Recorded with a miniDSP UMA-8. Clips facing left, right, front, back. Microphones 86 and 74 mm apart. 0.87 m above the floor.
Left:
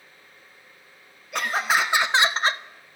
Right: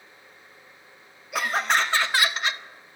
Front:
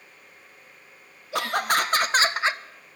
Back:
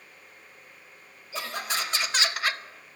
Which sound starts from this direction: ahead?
Laughter, at 1.3 s.